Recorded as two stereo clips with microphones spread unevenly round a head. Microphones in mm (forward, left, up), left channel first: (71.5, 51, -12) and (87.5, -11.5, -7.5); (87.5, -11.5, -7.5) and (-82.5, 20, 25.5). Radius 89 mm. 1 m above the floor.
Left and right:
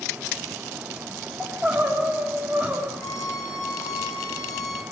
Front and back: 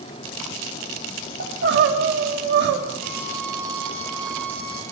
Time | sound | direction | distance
1.4 | crying | 160° right | 2.5 m
3.0 | a violin | 70° left | 6.5 m